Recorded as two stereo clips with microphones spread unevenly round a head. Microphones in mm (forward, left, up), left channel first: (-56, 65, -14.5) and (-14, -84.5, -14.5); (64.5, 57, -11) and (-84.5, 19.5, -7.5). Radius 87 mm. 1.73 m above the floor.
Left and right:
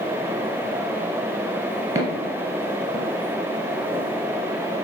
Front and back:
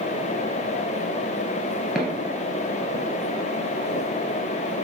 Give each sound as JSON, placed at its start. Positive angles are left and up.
{"t": 1.9, "sound": "footsteps", "azimuth_deg": -90, "distance_m": 1.8}